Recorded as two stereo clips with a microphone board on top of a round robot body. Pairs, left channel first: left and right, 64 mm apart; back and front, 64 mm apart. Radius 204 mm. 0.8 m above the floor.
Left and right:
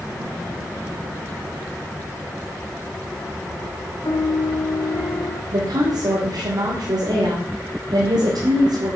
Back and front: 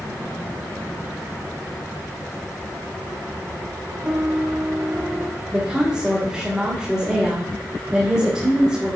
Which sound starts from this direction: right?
A woman speaking, at 5.5 s.